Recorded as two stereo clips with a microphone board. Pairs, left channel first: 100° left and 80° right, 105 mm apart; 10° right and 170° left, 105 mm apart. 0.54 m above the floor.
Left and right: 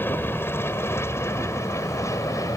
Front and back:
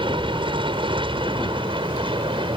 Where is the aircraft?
165° left; by 2.6 s 150° left.